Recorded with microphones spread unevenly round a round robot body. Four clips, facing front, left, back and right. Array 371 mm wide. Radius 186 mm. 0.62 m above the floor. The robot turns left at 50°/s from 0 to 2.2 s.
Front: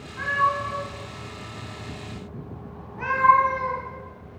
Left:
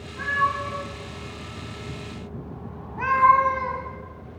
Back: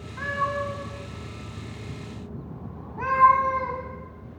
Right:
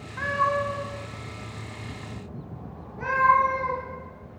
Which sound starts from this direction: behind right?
A cat meowing, at 0.2 s.